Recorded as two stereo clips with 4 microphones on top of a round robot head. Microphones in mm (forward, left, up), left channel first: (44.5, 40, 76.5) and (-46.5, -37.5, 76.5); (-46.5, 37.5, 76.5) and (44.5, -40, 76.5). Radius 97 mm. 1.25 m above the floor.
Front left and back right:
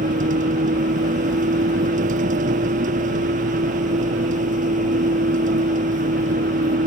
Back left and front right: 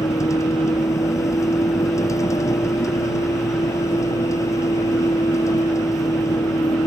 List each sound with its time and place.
0.0 s a vehicle: 155° right